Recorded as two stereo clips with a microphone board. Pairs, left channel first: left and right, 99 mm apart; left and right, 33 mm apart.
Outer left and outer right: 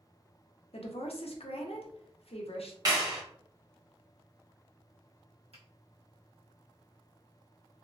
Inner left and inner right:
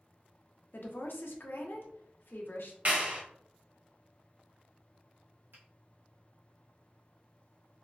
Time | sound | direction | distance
0.7 | a woman speaking | 75° left (ahead or behind) | 0.6 m
2.9 | a clap | 40° right (ahead or behind) | 1.0 m
5.5 | a finger snap | 85° right | 1.4 m